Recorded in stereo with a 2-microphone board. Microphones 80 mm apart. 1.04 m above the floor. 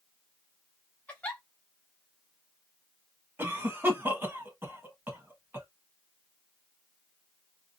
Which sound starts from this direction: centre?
A giggle, at 1.1 s.